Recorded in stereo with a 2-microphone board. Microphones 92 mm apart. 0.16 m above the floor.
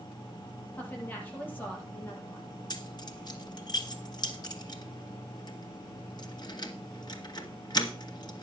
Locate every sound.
0.8 s a woman speaking: 20° left (ahead or behind), 5 m
2.7 s keys jangling: 50° left (ahead or behind), 1.9 m